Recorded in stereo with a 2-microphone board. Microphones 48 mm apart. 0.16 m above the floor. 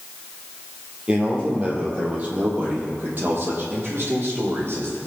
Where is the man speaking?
20° right (ahead or behind), 5 m; by 5.0 s 55° right (ahead or behind), 7 m.